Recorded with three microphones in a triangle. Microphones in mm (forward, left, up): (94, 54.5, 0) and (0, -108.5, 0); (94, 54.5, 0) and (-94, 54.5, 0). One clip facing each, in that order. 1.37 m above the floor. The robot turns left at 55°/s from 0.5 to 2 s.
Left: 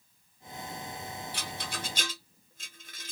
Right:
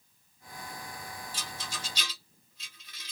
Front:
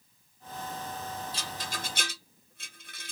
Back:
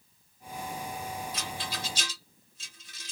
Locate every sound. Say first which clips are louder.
1.3 s a rattle: left 3 dB, back 1 dB; 60° left, 0.6 m; by 3.1 s 25° left, 0.6 m